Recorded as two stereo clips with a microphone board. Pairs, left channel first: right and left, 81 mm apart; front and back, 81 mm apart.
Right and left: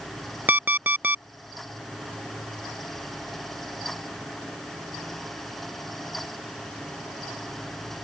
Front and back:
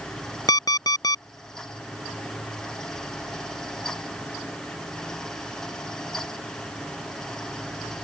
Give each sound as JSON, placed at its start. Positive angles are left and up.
{"t": 0.5, "sound": "an alarm clock", "azimuth_deg": 25}